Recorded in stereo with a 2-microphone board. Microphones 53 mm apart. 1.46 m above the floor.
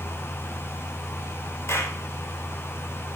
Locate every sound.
1.7 s a clap: 60° left (ahead or behind), 4 m